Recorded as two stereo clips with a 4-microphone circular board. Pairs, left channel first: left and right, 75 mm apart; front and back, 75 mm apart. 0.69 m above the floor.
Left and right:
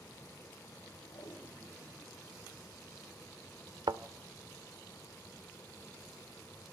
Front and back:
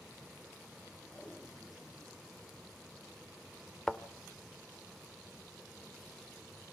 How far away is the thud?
About 0.8 m.